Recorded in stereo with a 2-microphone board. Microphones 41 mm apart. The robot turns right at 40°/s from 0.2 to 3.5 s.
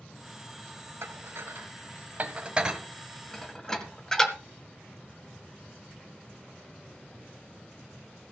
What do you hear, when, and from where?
1.0 s dishes clattering: 80° right, 1.8 m; by 4.3 s 10° left (ahead or behind), 1.8 m